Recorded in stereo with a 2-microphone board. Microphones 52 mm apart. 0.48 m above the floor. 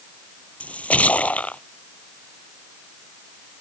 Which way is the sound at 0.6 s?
25° left (ahead or behind).